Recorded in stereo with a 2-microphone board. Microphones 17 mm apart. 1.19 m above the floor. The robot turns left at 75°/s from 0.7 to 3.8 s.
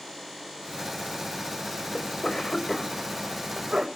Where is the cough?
80° left, 5.5 m; by 3.9 s 60° right (ahead or behind), 5.5 m.